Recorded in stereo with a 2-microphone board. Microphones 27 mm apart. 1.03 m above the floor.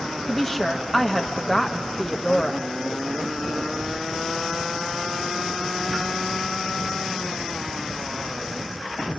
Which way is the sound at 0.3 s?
5° left (ahead or behind).